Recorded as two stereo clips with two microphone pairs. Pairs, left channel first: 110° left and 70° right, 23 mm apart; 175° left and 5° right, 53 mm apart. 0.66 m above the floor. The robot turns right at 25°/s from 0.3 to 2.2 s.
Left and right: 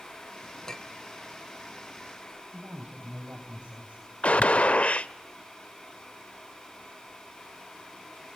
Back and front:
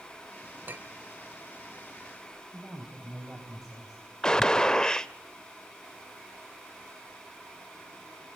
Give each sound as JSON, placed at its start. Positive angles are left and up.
{"t": 0.7, "sound": "a clink", "azimuth_deg": 45, "distance_m": 1.2}
{"t": 2.5, "sound": "a woman speaking", "azimuth_deg": -85, "distance_m": 4.5}
{"t": 4.2, "sound": "a gunshot", "azimuth_deg": 95, "distance_m": 0.6}